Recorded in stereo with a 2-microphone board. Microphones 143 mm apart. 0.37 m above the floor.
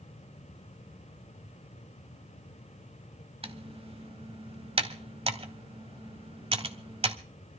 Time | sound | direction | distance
3.4 | typing on a keyboard | 40° right (ahead or behind) | 1.0 m